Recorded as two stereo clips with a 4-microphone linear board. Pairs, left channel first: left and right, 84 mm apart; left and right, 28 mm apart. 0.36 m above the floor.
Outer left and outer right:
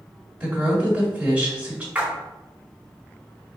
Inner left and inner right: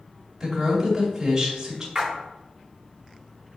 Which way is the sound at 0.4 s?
10° right (ahead or behind).